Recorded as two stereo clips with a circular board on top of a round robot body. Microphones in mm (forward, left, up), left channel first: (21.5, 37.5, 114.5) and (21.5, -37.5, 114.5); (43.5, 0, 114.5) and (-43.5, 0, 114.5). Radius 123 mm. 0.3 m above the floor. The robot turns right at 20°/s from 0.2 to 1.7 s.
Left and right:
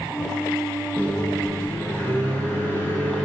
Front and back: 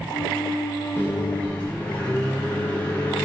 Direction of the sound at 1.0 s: 40° left.